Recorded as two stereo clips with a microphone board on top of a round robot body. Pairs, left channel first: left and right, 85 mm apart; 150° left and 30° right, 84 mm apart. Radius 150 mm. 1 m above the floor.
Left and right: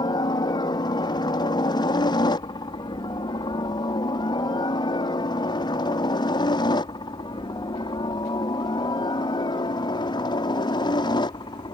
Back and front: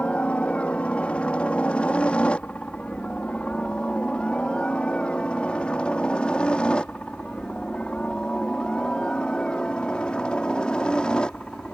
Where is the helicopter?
75° left; by 11.8 s 70° left.